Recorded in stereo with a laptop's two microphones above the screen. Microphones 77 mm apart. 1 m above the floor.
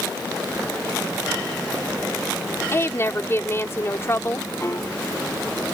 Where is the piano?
35° left (ahead or behind).